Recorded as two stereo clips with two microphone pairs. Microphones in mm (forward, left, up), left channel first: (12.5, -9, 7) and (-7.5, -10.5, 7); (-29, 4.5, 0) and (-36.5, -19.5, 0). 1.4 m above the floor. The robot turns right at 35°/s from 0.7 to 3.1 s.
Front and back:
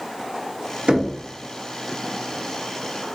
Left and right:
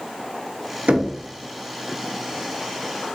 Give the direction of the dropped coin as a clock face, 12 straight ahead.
No dropped coin in this recording.